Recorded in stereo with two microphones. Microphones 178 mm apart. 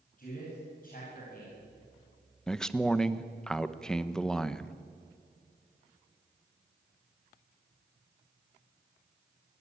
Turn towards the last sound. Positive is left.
turn(degrees=5)  # may be behind; listen again after turning